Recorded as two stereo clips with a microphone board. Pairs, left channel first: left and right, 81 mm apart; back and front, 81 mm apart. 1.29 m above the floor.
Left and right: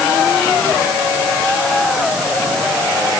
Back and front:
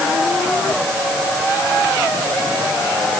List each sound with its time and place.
Only background noise.